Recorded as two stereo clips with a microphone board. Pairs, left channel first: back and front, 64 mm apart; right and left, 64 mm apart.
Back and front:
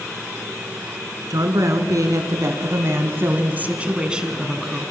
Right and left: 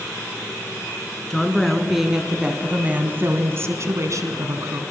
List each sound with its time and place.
1.3 s a woman speaking: 5° right, 3.5 m; by 4.8 s 85° left, 3.5 m